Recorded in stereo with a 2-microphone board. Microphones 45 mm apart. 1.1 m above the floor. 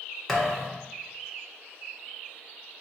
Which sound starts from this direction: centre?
A thud, at 0.3 s.